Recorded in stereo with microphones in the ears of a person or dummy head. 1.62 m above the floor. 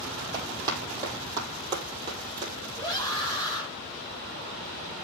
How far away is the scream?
About 3 m.